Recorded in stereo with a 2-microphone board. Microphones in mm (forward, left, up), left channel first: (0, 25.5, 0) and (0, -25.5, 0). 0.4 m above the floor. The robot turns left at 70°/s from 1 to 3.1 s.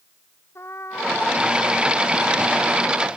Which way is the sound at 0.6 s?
120° left.